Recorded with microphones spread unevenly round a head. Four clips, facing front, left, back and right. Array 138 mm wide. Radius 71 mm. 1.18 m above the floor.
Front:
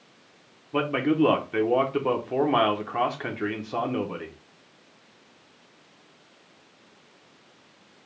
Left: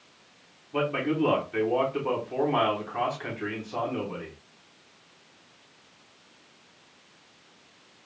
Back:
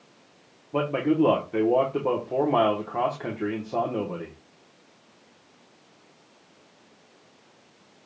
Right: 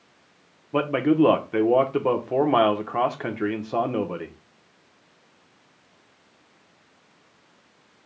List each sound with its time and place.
0.7 s a man speaking: 115° right, 0.9 m